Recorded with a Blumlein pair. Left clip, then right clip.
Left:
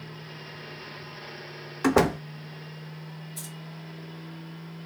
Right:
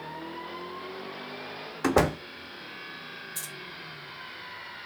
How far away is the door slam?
About 0.5 m.